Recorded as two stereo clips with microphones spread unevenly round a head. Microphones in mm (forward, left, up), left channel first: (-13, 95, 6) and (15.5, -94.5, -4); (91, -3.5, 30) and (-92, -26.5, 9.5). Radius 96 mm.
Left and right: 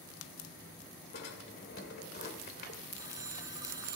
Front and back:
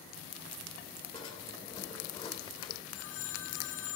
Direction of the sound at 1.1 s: 65° left.